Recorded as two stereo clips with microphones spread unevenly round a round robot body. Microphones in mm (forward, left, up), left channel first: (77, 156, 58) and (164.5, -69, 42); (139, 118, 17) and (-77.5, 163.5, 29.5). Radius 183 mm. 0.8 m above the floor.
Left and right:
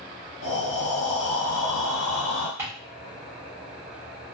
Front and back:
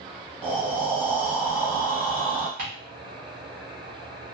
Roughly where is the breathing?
Left.